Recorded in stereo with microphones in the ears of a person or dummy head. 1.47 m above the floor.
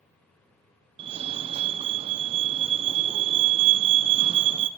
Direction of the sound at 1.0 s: 30° right (ahead or behind).